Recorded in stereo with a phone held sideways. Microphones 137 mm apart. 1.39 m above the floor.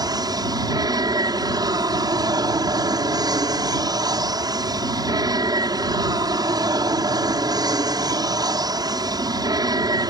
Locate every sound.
0.0 s an aircraft: 30° right (ahead or behind)